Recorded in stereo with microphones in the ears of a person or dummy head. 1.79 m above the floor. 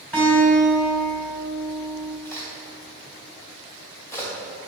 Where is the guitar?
5° left (ahead or behind), 2.5 m.